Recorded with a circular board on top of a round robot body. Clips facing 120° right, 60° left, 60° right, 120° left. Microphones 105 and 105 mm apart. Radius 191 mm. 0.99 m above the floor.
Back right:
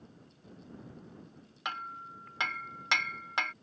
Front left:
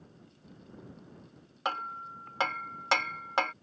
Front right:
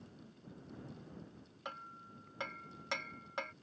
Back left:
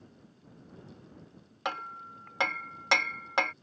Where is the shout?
I don't hear a shout.